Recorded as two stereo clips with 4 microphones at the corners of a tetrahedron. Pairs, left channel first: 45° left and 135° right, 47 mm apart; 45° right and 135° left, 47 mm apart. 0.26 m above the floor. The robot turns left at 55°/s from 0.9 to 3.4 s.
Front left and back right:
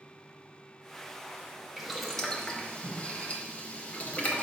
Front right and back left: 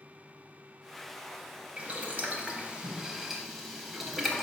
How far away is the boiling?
About 0.5 m.